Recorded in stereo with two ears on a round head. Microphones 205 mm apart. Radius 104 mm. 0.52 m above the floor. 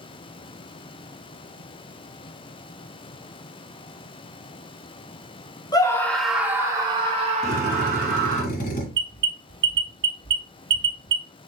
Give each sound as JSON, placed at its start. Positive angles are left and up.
{"t": 5.7, "sound": "a scream", "side_deg": 20, "distance_m": 0.8}
{"t": 7.4, "sound": "a drill", "side_deg": 40, "distance_m": 1.8}
{"t": 8.9, "sound": "an alarm", "side_deg": -55, "distance_m": 1.3}